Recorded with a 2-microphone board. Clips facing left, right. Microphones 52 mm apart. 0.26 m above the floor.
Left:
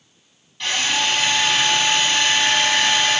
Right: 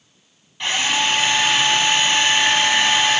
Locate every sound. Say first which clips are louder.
0.6 s a drill: right 1 dB; 20° right (ahead or behind), 0.9 m